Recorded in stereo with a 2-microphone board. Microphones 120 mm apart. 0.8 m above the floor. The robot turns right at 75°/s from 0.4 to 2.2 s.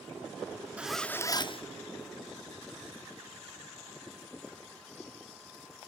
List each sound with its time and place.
0.8 s a zipper: 10° right, 0.8 m; by 1.6 s 55° left, 0.8 m